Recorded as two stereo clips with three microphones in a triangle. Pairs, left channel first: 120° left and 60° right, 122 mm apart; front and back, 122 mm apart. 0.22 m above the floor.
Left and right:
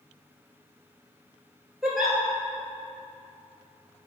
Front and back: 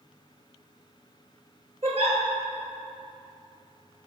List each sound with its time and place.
1.8 s a giggle: 150° right, 1.6 m